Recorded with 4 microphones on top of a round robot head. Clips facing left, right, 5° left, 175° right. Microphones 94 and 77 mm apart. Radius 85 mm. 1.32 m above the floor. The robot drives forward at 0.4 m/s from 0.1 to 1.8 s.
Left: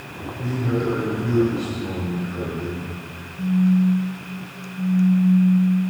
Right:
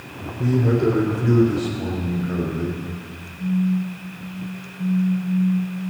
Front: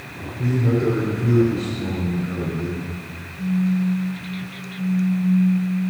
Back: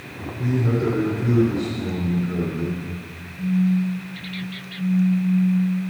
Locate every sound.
0.4 s a man speaking: 95° right, 3.5 m; by 2.8 s 105° right, 3.5 m
3.4 s a phone buzzing: 105° left, 5.5 m